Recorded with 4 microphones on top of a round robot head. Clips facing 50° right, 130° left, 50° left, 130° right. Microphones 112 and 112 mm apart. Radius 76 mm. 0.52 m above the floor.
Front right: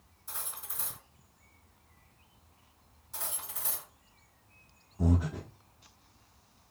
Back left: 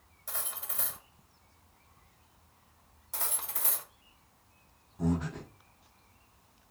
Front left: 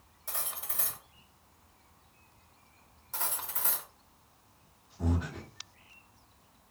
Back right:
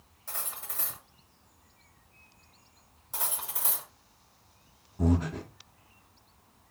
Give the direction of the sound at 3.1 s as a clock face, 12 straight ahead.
7 o'clock.